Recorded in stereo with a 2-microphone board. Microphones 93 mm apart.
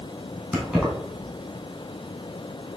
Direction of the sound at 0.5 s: Centre (ahead or behind).